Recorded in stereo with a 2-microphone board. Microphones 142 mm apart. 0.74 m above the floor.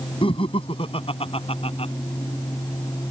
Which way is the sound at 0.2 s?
40° left (ahead or behind).